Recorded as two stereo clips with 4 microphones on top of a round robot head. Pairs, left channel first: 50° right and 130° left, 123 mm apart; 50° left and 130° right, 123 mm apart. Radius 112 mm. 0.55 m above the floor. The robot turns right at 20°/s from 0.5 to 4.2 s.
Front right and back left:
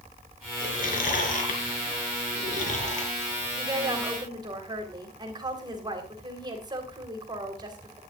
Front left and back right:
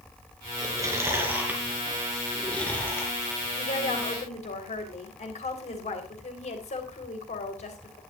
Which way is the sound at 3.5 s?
60° left.